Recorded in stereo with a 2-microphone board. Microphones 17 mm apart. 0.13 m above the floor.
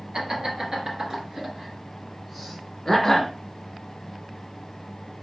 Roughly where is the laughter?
Right.